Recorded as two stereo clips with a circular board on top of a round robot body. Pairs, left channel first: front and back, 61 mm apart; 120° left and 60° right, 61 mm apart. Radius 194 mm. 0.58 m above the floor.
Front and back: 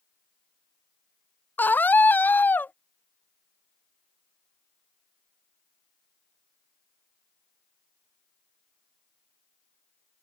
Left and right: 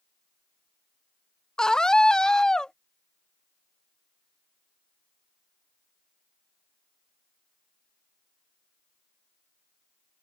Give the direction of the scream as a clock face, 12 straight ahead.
11 o'clock.